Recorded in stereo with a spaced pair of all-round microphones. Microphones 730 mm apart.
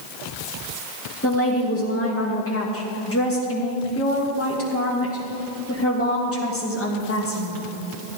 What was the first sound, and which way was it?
A woman speaking, 15° left (ahead or behind).